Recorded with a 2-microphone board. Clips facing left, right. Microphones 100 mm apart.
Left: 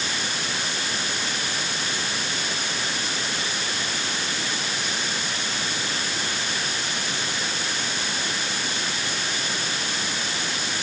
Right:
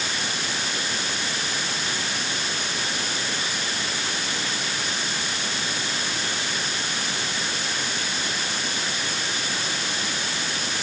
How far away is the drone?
No drone in this recording.